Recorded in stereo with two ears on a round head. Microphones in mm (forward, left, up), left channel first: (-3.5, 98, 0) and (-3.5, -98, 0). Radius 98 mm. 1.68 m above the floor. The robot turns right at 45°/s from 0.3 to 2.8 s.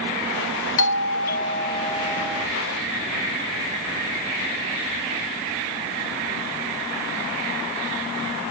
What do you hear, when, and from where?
0.8 s a doorbell: 110° left; by 2.5 s 175° right